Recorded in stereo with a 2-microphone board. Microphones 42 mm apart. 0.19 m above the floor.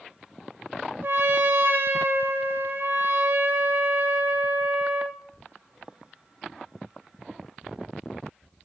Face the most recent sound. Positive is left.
turn(degrees=-60)  # may be behind; listen again after turning